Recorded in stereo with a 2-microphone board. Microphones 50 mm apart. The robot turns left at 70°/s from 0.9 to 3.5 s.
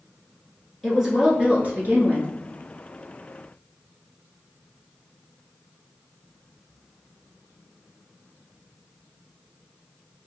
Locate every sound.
0.8 s a woman speaking: straight ahead, 1.4 m; by 2.3 s 100° right, 1.4 m